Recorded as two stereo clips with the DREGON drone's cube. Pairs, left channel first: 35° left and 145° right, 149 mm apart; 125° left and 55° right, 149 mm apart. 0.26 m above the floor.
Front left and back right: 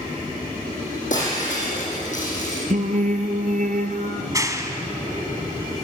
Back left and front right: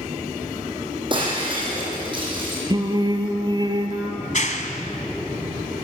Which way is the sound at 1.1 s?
Straight ahead.